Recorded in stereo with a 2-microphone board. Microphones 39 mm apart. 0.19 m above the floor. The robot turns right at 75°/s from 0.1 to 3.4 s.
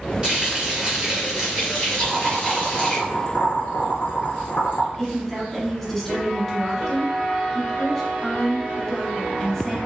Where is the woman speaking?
10° left (ahead or behind), 1.3 m.